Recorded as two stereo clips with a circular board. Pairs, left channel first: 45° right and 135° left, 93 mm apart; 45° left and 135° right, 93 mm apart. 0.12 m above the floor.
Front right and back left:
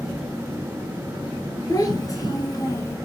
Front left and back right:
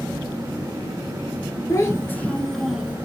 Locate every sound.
1.7 s a child speaking: 5° right, 1.3 m; by 3.0 s 75° right, 0.8 m